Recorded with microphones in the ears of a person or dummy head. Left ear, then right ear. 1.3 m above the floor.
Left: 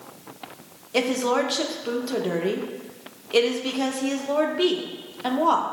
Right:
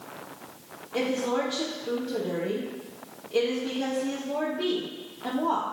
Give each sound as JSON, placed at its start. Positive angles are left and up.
{"t": 0.9, "sound": "a woman speaking", "side_deg": 60, "distance_m": 0.9}